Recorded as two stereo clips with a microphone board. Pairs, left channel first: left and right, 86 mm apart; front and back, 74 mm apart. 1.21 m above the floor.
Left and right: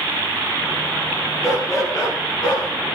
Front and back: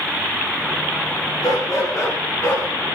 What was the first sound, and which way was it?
A dog barking, 35° left.